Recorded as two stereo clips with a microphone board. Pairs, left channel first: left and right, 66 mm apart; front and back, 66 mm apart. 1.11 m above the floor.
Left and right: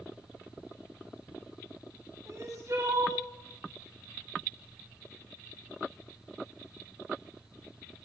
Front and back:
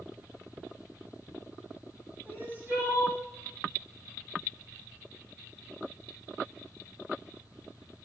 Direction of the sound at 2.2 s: 125° right.